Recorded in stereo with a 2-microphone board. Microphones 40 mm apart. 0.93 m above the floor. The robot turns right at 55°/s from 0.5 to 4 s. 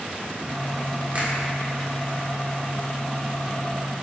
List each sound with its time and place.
1.1 s a finger snap: 40° right (ahead or behind), 1.6 m; by 1.4 s 50° right (ahead or behind), 1.6 m